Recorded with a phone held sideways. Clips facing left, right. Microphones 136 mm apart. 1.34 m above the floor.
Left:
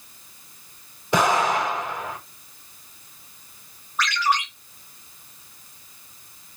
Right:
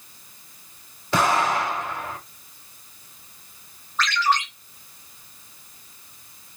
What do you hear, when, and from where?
1.1 s an explosion: 15° left (ahead or behind), 3.5 m
4.0 s a ringtone: 10° left (ahead or behind), 3 m